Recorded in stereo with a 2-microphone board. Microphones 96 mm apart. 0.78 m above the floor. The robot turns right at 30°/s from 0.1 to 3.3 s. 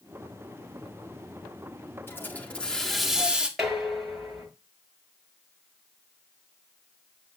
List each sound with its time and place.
2.1 s a hiss: 155° left, 1.8 m; by 3.5 s 170° right, 1.8 m
3.6 s dishes clattering: 5° right (ahead or behind), 7.5 m